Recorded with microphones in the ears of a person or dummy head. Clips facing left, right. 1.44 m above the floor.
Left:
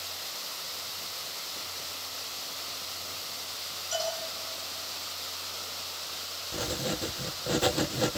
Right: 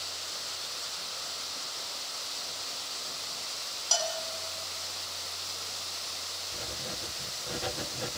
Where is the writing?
60° left (ahead or behind), 0.7 m.